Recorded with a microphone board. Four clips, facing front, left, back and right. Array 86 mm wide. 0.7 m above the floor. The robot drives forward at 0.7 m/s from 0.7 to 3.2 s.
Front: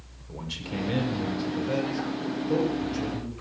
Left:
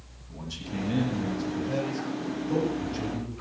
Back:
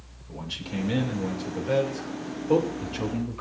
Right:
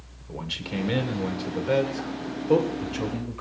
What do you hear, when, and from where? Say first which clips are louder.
0.3 s a man speaking: right 4 dB, even; 85° right, 2.0 m; by 3.4 s 130° right, 2.5 m